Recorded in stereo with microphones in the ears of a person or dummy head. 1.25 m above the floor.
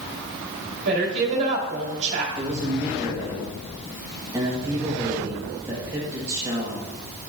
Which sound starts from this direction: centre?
A man speaking, at 2.4 s.